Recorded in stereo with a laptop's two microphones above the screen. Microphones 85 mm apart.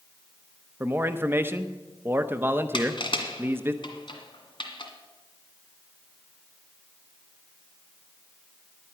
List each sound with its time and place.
0.8 s a man speaking: 25° right (ahead or behind), 0.7 m
2.7 s crushing: 65° left (ahead or behind), 1.8 m